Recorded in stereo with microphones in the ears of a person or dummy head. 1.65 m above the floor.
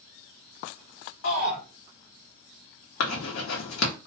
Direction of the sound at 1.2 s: 65° left (ahead or behind).